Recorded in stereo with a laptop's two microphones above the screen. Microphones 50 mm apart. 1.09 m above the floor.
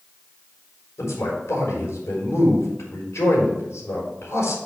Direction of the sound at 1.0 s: 75° left (ahead or behind).